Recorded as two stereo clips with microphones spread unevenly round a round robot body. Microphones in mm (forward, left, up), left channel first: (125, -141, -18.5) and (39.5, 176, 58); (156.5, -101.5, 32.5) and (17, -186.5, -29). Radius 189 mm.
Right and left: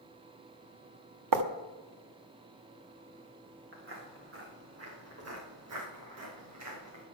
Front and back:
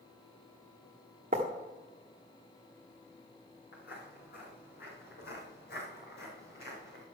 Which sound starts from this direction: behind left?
Writing, at 1.3 s.